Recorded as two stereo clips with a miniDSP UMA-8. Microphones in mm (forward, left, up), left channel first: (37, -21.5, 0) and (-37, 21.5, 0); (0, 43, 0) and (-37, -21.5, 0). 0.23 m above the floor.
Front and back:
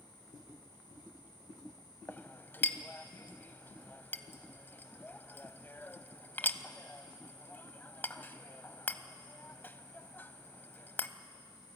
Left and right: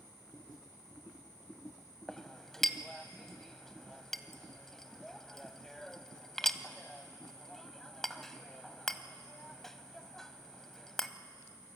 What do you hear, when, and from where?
2.1 s a clink: 20° right, 0.7 m